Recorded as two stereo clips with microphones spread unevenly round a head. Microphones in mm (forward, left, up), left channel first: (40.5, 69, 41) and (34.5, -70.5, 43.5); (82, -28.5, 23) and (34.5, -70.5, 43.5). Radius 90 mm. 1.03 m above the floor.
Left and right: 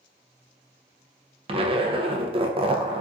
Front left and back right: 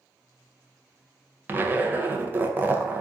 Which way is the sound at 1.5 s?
65° right.